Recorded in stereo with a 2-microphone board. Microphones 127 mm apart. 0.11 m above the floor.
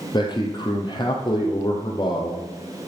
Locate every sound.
0.1 s a man speaking: 35° left (ahead or behind), 2.5 m